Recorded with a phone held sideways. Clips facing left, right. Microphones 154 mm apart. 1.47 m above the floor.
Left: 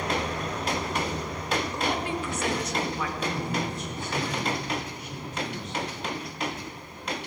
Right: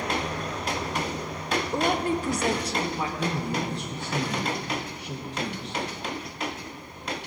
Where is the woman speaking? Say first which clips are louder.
Right 4 dB; 55° right (ahead or behind), 0.9 m; by 3.1 s 25° right (ahead or behind), 1.8 m.